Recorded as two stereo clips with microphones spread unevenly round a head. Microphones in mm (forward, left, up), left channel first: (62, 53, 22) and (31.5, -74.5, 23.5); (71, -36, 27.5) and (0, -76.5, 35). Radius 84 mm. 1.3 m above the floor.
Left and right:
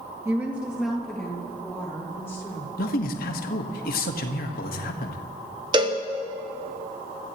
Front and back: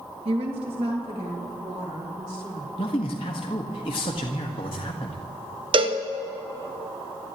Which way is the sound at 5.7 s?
160° right.